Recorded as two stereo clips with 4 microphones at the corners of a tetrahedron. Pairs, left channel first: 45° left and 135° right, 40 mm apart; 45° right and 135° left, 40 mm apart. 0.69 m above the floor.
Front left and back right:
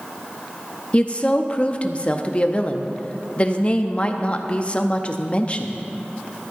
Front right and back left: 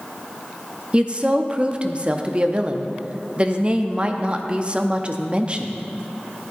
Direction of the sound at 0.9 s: 90° left.